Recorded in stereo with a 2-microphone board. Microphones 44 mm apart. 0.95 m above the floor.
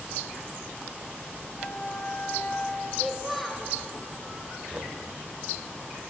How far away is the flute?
About 2.5 m.